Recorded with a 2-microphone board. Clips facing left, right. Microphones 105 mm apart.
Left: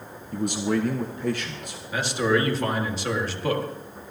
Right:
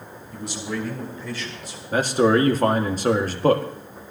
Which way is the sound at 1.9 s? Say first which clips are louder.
Right 5 dB; 45° right (ahead or behind).